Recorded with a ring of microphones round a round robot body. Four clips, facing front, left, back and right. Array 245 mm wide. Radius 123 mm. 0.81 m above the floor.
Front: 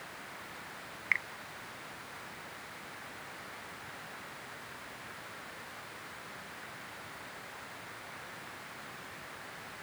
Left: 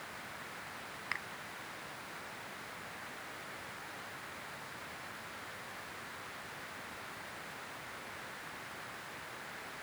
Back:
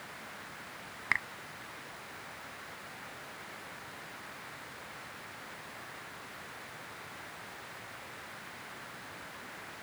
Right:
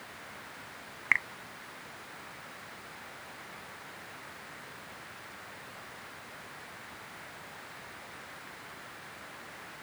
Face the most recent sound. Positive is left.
turn(degrees=-140)